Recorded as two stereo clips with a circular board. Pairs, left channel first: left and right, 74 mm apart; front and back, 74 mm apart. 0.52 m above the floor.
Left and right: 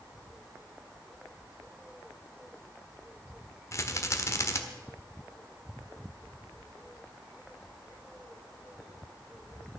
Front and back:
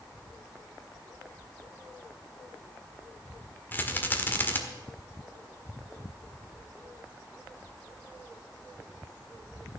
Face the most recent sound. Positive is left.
turn(degrees=55)